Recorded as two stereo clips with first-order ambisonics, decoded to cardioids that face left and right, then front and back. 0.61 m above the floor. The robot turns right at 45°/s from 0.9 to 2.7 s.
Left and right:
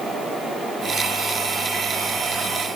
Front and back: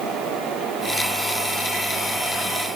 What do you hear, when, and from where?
Only background noise.